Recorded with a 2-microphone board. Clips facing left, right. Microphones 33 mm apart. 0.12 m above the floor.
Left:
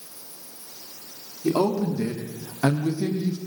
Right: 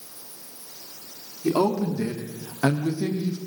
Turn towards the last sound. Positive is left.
turn(degrees=-10)  # may be behind; listen again after turning